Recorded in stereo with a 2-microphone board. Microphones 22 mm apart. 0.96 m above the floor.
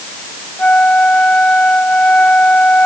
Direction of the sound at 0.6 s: 80° left.